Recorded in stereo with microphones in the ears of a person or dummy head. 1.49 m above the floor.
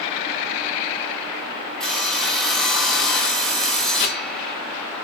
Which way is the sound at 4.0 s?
55° left (ahead or behind).